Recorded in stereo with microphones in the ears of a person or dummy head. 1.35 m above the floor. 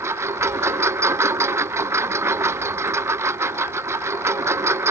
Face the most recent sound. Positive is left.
turn(degrees=-15)  # may be behind; listen again after turning